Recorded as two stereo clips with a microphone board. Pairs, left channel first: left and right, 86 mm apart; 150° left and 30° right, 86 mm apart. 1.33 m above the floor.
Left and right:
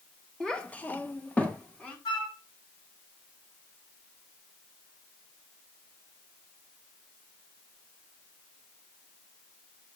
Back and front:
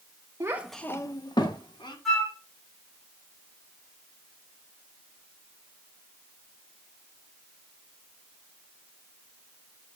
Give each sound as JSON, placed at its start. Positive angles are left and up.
{"t": 0.4, "sound": "a child speaking", "azimuth_deg": 10, "distance_m": 0.8}
{"t": 2.0, "sound": "a flute", "azimuth_deg": 60, "distance_m": 2.0}